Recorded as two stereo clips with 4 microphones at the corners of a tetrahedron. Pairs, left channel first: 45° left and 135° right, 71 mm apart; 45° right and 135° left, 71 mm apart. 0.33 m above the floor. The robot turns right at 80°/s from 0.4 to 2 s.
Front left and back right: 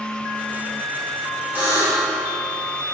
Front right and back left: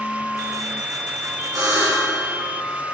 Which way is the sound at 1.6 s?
165° left.